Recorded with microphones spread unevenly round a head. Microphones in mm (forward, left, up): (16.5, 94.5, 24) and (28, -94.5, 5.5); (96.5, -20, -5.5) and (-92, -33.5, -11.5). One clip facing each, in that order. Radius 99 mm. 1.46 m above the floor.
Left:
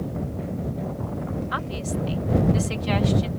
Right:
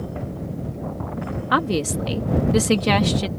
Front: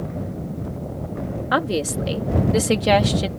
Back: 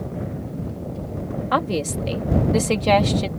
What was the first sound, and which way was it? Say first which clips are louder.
A woman speaking: right 7 dB, front 1 dB; 75° right.